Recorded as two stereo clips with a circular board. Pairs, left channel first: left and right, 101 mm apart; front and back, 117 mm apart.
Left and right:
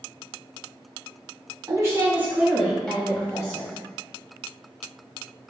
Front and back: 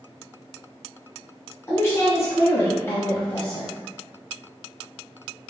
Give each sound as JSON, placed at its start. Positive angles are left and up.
{"t": 1.7, "sound": "a woman speaking", "azimuth_deg": -55, "distance_m": 1.8}